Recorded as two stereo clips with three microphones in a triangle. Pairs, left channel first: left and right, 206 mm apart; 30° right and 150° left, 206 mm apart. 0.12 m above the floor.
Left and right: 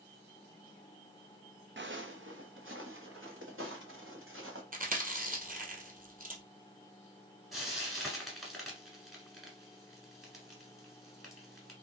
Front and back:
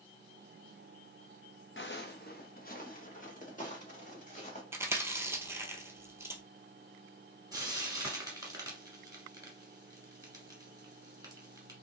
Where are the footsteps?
55° right, 0.5 m; by 4.6 s 85° right, 2.5 m.